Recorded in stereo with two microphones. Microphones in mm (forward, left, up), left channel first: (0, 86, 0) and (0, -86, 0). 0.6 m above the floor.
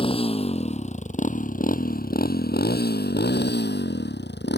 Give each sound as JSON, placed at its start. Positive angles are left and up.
{"t": 0.0, "sound": "a motorcycle", "side_deg": 30}